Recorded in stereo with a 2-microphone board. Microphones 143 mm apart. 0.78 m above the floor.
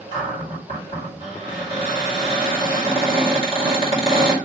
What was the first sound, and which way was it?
A cupboard door, 40° left (ahead or behind).